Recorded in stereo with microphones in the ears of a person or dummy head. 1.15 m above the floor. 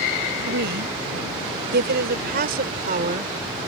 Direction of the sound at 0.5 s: 65° right (ahead or behind).